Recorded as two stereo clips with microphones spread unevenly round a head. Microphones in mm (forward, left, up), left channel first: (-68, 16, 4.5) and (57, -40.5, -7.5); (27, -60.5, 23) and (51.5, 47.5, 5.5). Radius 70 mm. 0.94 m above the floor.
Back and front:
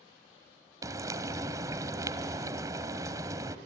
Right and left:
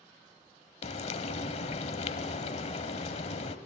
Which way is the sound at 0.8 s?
90° right.